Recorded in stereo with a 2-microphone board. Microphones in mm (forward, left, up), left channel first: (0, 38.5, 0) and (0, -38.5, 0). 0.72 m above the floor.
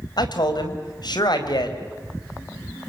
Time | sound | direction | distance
0.2 | a man speaking | 65° left (ahead or behind) | 4.5 m